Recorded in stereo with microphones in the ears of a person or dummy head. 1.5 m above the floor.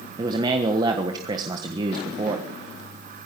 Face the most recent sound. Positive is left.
turn(degrees=-25)  # may be behind; listen again after turning